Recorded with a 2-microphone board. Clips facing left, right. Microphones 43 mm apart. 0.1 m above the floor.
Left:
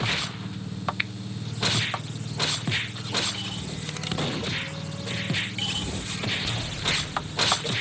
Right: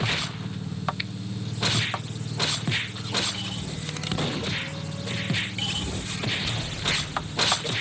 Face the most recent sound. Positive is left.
turn(degrees=35)  # may be behind; listen again after turning